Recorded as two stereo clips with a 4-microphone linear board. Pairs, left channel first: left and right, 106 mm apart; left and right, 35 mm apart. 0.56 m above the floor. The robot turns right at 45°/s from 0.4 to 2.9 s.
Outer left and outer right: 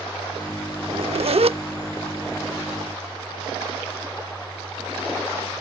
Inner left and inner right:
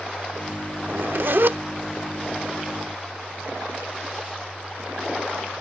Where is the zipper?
110° right; by 1.6 s 75° right.